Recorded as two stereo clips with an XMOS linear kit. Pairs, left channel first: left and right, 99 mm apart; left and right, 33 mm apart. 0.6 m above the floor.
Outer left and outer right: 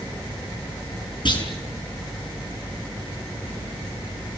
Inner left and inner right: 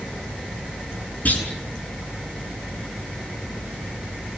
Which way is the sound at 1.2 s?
50° left (ahead or behind).